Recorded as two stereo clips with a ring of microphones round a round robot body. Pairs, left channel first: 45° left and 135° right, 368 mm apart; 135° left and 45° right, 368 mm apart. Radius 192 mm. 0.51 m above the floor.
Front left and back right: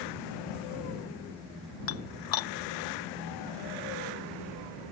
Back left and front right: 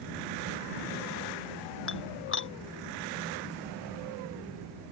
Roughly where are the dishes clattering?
Left.